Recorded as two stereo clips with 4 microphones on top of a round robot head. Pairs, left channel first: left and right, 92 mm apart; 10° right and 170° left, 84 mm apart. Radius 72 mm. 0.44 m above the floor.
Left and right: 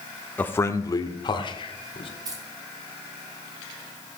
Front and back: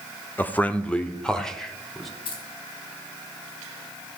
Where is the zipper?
I don't hear a zipper.